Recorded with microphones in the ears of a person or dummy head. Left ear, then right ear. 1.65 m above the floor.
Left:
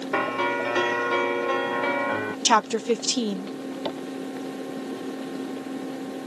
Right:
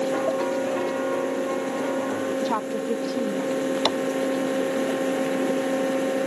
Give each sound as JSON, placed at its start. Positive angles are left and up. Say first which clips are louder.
{"t": 0.1, "sound": "a piano", "louder": "even", "side_deg": 80}
{"t": 2.5, "sound": "a woman speaking", "louder": "left 5 dB", "side_deg": 60}
{"t": 3.9, "sound": "tapping", "louder": "right 7 dB", "side_deg": -65}